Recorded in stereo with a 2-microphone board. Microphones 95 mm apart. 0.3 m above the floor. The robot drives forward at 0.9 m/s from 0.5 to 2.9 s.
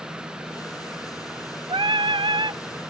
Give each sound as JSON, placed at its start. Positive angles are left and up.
{"t": 1.7, "sound": "singing", "side_deg": -55, "distance_m": 0.9}